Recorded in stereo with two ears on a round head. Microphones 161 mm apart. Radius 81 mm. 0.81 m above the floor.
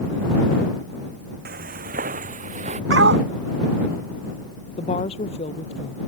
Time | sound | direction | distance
1.4 | footsteps | 55° right (ahead or behind) | ?
2.9 | a dog barking | 70° right (ahead or behind) | ?
4.8 | a woman speaking | 35° left (ahead or behind) | ?